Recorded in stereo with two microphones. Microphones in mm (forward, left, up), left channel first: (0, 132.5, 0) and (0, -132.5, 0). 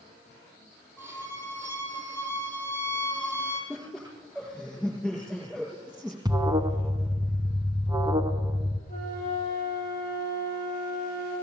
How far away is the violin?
About 4.5 m.